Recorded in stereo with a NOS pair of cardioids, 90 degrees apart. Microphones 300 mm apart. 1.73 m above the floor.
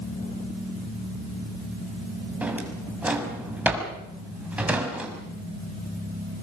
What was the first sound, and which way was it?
A drawer, 5° right.